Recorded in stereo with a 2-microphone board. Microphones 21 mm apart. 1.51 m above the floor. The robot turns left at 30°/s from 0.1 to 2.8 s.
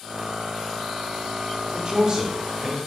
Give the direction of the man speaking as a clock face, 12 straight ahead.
4 o'clock.